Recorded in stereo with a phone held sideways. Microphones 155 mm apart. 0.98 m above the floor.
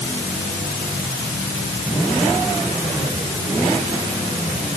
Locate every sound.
Only background noise.